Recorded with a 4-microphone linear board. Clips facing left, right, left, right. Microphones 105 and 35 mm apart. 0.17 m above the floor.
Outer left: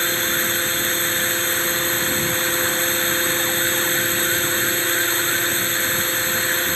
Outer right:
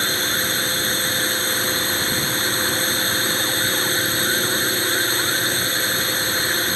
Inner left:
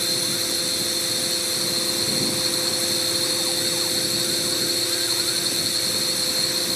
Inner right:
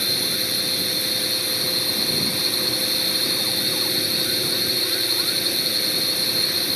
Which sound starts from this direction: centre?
A drone, at 0.0 s.